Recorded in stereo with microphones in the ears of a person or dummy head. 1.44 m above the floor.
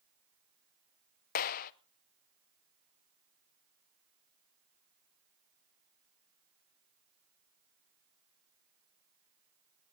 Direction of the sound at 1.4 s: 45° left (ahead or behind).